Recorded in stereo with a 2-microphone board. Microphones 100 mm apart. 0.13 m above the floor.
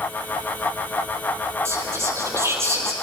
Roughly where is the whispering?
Right.